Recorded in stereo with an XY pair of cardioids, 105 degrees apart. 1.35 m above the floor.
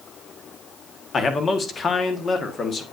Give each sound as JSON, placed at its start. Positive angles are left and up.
{"t": 1.1, "sound": "a man speaking", "azimuth_deg": 40, "distance_m": 1.4}